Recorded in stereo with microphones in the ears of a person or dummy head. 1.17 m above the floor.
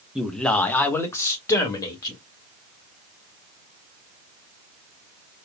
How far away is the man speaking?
About 0.6 m.